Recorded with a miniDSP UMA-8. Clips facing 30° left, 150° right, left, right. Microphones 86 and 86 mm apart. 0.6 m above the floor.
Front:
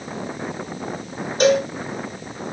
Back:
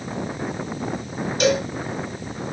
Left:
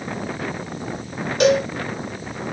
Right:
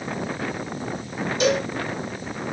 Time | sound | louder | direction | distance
1.4 | a cowbell | front 4 dB, left 5 dB | 80° left | 0.8 m